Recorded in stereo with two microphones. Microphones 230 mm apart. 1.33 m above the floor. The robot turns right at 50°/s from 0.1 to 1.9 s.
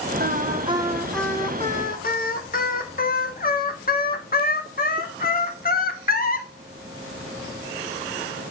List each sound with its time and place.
0.2 s singing: 45° right, 1.0 m; by 6.5 s 40° left, 1.0 m